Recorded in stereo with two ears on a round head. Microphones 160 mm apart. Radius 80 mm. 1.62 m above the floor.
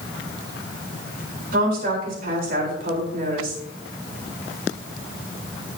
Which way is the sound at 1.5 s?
55° right (ahead or behind).